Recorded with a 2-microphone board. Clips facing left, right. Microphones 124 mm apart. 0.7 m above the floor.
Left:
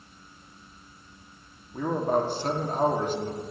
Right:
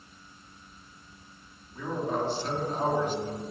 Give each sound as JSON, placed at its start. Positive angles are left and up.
{"t": 1.7, "sound": "a man speaking", "side_deg": 50, "distance_m": 1.7}